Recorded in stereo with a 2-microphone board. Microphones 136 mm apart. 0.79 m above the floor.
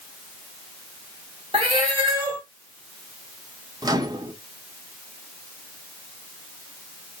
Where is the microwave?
30° right (ahead or behind), 0.9 m.